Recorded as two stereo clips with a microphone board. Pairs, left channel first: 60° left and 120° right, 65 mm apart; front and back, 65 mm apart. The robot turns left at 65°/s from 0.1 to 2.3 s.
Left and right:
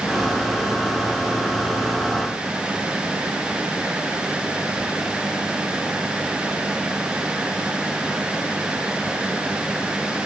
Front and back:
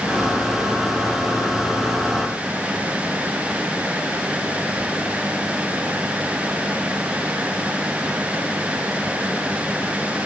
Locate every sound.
Only background noise.